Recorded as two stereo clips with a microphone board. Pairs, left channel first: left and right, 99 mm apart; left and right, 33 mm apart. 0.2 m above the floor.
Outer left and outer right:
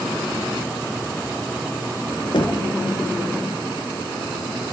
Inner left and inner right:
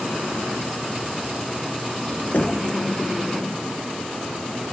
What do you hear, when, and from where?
2.3 s knocking: 65° left (ahead or behind), 2.5 m